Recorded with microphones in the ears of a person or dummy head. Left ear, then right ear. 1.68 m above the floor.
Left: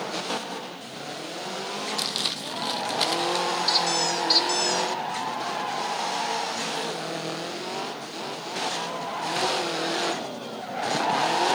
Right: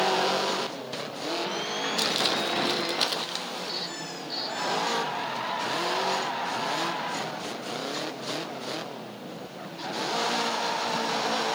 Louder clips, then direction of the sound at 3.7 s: Left 11 dB; 70° left (ahead or behind).